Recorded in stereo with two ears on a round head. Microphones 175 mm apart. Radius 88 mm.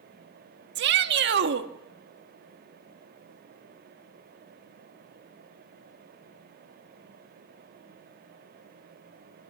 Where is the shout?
60° right (ahead or behind), 1.4 m.